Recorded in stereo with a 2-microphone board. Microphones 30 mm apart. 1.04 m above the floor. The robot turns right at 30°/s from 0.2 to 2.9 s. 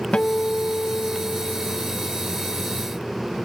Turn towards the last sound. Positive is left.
turn(degrees=135)